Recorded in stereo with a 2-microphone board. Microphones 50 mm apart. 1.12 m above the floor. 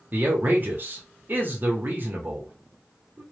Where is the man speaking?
45° right (ahead or behind), 0.8 m.